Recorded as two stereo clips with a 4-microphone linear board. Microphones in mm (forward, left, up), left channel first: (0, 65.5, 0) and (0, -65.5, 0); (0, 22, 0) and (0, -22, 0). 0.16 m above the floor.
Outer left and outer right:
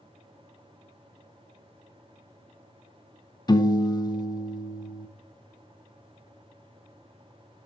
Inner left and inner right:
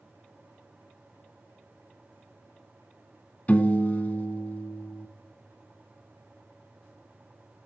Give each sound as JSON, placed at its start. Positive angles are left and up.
{"t": 3.5, "sound": "a piano", "side_deg": 30, "distance_m": 0.7}